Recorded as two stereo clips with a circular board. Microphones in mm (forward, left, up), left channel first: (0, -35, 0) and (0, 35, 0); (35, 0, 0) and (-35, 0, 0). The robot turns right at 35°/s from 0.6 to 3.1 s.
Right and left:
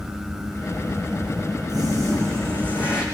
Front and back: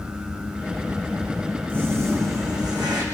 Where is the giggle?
I don't hear a giggle.